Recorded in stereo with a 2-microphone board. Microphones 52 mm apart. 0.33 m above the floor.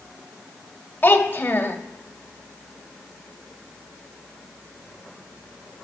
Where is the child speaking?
35° left (ahead or behind), 1.1 m.